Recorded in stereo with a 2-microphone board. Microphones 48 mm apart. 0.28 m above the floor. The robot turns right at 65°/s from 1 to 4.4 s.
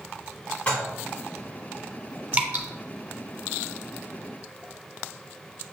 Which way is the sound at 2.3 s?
30° right (ahead or behind).